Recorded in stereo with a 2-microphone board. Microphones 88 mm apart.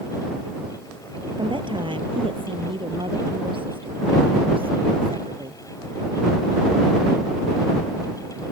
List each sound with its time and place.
1.4 s a woman speaking: 65° right (ahead or behind); by 5.6 s 80° right